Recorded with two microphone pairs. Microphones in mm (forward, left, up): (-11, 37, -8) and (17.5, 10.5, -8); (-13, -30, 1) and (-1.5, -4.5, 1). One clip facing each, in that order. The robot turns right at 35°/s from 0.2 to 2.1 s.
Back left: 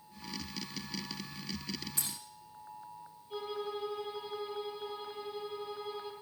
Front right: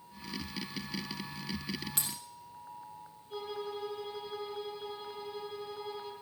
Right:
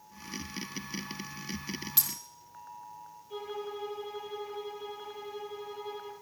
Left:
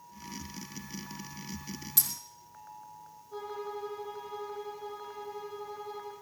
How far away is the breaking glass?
About 3 m.